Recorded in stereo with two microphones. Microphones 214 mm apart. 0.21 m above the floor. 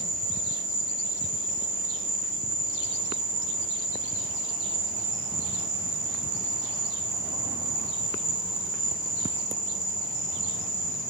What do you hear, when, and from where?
0.0 s an insect: 50° left (ahead or behind), 1.7 m